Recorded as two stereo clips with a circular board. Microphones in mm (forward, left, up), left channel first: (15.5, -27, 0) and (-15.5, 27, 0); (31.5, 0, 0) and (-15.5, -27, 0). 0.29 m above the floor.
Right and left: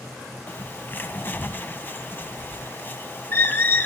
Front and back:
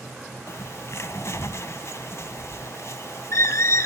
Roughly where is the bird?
Ahead.